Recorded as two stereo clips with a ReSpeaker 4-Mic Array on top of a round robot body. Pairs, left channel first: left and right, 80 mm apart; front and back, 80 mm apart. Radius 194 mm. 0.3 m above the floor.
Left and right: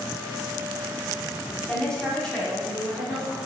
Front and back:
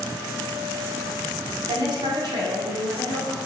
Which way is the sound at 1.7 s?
170° left.